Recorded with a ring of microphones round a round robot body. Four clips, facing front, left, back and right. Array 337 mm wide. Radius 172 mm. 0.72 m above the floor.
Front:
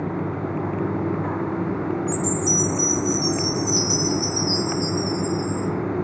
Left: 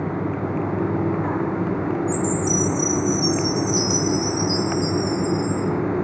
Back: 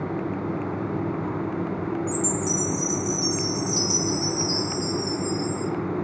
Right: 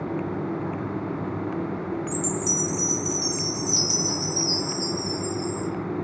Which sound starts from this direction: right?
A chime, at 2.1 s.